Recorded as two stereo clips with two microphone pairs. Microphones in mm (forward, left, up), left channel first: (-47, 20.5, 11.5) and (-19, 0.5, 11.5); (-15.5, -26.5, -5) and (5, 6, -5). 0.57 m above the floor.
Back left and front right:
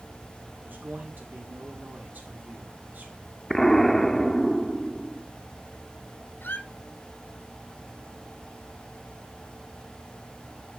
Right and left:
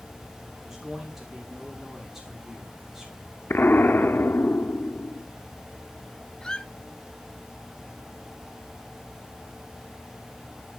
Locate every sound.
0.6 s a man speaking: 20° right, 1.6 m
3.5 s an explosion: 135° right, 0.6 m
6.4 s a squeak: 165° left, 1.0 m